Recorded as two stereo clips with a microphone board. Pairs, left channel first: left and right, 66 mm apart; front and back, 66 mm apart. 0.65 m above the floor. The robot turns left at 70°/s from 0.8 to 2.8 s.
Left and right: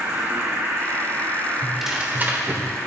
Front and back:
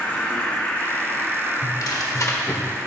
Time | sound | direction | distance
0.0 | an insect | 60° right | 2 m
1.6 | tearing paper | 10° left | 1.3 m